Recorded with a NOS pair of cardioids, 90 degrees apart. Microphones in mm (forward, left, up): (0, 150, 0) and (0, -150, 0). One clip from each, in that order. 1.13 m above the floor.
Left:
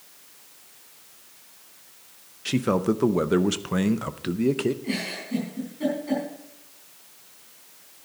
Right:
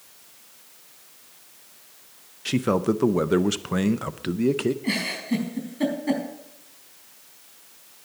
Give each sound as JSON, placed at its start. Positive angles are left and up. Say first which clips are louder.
{"t": 2.5, "sound": "a man speaking", "louder": "right 1 dB", "azimuth_deg": -5, "distance_m": 0.6}
{"t": 4.8, "sound": "a giggle", "louder": "right 4 dB", "azimuth_deg": -60, "distance_m": 4.5}